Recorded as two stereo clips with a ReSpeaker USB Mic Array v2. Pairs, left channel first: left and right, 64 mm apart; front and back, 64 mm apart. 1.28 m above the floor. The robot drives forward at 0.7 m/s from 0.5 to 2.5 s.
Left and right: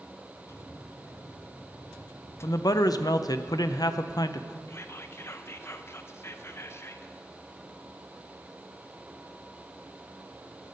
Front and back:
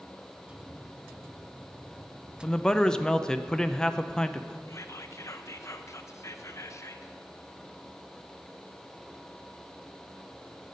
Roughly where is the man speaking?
Left.